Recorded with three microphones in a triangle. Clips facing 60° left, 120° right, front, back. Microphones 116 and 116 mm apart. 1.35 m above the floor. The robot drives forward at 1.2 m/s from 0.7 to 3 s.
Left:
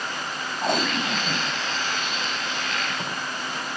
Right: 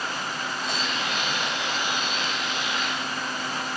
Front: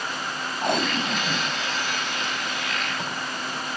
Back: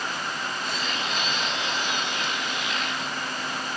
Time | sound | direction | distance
0.6 | tape being pulled | 25° left | ?